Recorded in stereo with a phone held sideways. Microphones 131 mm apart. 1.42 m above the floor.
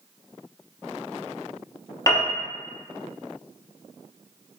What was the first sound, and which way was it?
A piano, 25° left (ahead or behind).